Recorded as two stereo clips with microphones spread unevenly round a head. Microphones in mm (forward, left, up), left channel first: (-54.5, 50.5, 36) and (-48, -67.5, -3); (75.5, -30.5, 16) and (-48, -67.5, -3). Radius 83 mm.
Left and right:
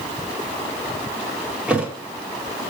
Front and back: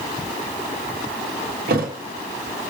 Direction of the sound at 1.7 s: 175° right.